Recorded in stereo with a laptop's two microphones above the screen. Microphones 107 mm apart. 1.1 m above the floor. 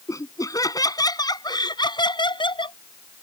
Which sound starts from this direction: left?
Laughter, at 0.1 s.